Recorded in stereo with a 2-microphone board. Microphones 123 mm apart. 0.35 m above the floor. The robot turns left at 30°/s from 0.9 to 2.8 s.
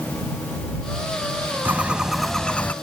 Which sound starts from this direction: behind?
A bird, at 1.6 s.